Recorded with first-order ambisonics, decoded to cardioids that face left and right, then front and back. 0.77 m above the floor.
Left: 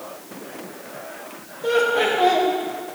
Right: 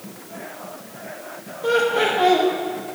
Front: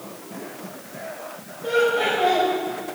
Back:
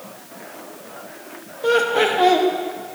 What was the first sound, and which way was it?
Laughter, 175° right.